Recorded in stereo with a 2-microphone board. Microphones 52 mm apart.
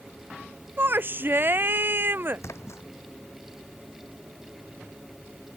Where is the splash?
65° left (ahead or behind).